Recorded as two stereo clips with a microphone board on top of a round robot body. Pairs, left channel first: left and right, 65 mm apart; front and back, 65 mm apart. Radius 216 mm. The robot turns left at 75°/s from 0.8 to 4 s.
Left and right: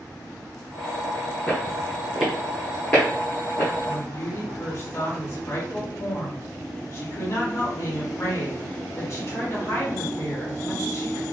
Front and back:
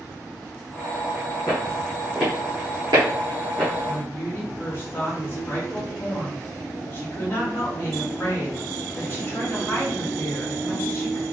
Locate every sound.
1.5 s footsteps: 40° left, 0.8 m; by 3.7 s 95° left, 1.3 m
3.9 s a woman speaking: 55° left, 1.7 m; by 11.2 s 45° left, 1.7 m